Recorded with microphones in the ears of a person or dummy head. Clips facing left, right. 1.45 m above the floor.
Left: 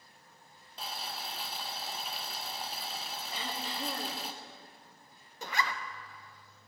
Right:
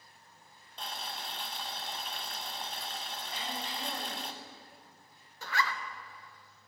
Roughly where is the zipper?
Centre.